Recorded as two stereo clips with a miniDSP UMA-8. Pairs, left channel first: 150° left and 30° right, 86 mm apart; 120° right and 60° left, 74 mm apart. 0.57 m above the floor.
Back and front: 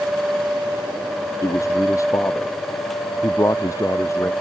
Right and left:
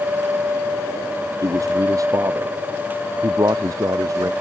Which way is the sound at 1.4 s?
100° left.